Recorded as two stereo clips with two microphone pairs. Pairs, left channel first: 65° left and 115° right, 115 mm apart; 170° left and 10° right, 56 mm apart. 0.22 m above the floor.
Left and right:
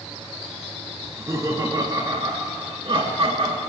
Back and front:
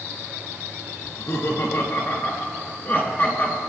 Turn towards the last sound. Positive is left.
turn(degrees=-140)